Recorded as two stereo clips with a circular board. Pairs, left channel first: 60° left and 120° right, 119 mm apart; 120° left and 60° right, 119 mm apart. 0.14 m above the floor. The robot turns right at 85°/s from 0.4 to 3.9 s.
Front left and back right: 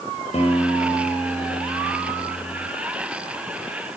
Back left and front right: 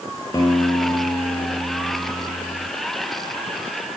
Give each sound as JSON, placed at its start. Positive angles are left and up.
{"t": 0.3, "sound": "a guitar", "azimuth_deg": 70, "distance_m": 2.5}